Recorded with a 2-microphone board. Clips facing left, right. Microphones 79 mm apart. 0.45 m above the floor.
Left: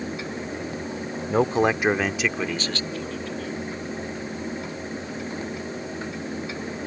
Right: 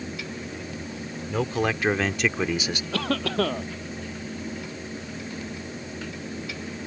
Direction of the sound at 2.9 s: 70° right (ahead or behind).